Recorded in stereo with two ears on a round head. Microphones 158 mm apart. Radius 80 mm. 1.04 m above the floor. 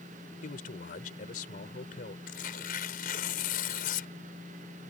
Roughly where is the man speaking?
Left.